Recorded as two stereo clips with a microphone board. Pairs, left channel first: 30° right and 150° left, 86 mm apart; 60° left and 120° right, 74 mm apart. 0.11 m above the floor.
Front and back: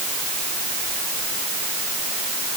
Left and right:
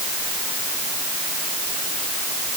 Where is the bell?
No bell in this recording.